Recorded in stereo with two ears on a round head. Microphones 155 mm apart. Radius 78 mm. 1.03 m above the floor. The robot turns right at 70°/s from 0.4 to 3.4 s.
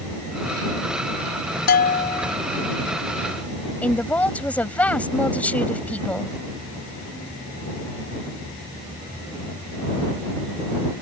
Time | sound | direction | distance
1.7 | a bell | 115° left | ?
3.8 | a woman speaking | 5° left (ahead or behind) | ?